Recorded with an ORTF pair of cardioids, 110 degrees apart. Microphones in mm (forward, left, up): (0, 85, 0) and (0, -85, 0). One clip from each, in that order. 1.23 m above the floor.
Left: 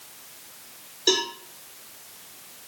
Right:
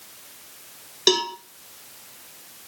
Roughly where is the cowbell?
Right.